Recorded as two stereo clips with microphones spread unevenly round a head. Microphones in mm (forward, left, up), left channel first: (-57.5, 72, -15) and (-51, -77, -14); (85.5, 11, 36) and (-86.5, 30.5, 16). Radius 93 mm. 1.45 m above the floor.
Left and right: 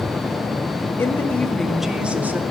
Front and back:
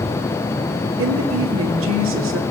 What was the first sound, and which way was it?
A woman speaking, 165° left.